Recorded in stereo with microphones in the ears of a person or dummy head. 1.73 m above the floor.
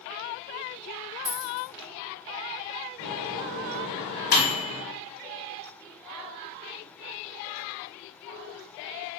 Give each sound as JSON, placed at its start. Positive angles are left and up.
{"t": 1.2, "sound": "a dropped coin", "side_deg": -35, "distance_m": 1.4}
{"t": 3.0, "sound": "a microwave", "side_deg": 75, "distance_m": 1.5}